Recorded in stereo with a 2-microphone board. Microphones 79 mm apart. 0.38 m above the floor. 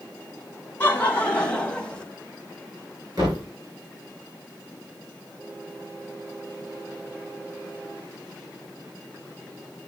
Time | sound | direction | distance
0.8 | laughter | 25° left (ahead or behind) | 3 m
3.2 | a thud | 45° right (ahead or behind) | 9.5 m